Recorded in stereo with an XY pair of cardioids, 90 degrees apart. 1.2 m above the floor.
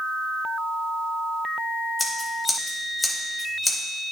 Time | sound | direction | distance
2.0 | scissors | 20° left | 2.5 m